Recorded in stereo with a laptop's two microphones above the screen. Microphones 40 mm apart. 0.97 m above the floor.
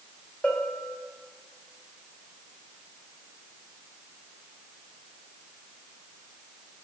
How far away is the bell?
About 1.4 m.